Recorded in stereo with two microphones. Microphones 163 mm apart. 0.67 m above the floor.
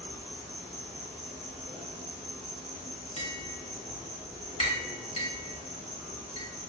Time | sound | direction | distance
0.0 | an insect | 45° right (ahead or behind) | 1.1 m
3.2 | tapping | 35° left (ahead or behind) | 0.7 m